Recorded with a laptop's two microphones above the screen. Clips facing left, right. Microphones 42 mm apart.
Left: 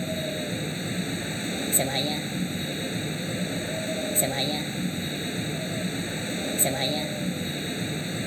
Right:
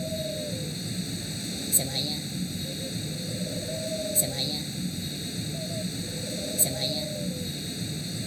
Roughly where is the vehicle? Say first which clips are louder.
Left 2 dB; left.